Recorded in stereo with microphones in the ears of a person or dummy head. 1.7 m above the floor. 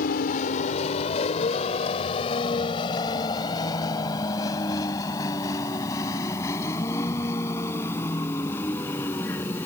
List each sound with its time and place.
0.0 s a vehicle: 60° left (ahead or behind); by 9.7 s 20° left (ahead or behind)